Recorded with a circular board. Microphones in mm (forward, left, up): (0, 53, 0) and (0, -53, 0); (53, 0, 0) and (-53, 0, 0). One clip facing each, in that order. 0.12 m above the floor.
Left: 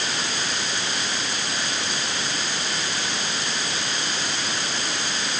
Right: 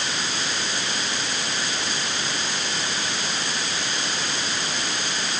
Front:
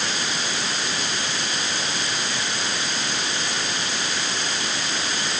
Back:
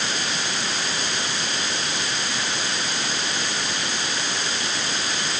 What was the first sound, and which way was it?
Only background noise.